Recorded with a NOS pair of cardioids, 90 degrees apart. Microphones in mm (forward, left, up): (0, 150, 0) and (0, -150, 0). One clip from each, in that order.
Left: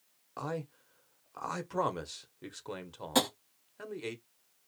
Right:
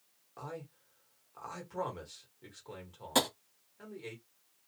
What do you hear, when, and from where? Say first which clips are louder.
0.4 s a man speaking: left 7 dB; 45° left, 0.9 m
3.1 s tapping: left 1 dB; 5° right, 0.9 m